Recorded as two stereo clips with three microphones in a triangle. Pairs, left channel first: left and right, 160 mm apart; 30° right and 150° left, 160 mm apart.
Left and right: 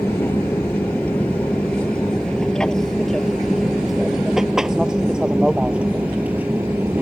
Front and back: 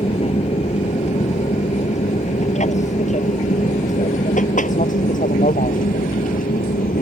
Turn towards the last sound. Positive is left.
turn(degrees=-15)